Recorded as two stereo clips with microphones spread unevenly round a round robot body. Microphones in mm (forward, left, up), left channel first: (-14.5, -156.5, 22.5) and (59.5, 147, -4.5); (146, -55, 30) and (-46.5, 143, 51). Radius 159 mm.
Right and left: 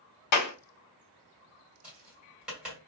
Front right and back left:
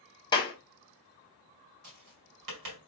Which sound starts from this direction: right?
A clap, at 0.3 s.